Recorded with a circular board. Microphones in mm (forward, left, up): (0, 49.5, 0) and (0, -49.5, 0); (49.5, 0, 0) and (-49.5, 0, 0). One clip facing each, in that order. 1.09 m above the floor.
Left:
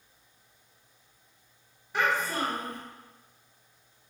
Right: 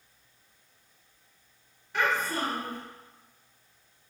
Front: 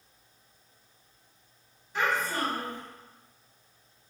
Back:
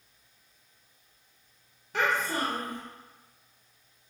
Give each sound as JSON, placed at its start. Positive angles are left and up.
{"t": 1.9, "sound": "a child speaking", "azimuth_deg": 170, "distance_m": 0.8}